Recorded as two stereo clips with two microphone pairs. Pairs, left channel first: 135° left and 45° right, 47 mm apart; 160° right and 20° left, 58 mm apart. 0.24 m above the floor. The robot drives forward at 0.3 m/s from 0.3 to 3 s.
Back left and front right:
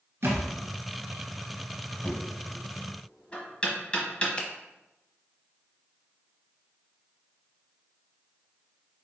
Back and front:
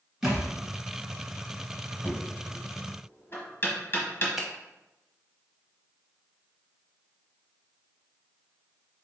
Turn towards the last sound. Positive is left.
turn(degrees=105)